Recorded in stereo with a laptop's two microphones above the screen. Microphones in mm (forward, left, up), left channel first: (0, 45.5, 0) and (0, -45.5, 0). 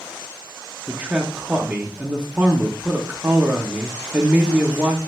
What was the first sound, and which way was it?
A man speaking, 20° right (ahead or behind).